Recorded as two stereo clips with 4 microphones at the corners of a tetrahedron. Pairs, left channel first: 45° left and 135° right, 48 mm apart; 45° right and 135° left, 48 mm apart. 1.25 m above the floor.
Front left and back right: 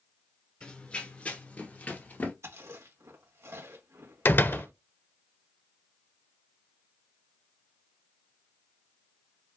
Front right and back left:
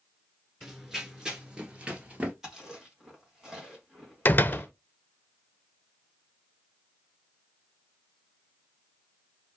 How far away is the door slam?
About 0.5 m.